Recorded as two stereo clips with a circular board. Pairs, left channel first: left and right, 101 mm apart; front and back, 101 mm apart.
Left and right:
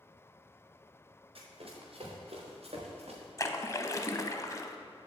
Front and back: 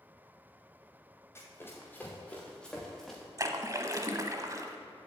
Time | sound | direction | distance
1.4 | running footsteps | 65° right | 4 m
3.4 | a splash | 135° left | 0.8 m